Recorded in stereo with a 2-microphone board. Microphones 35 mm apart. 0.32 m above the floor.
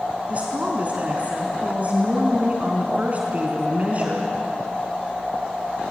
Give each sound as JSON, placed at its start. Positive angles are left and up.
{"t": 0.3, "sound": "a woman speaking", "side_deg": -40, "distance_m": 3.5}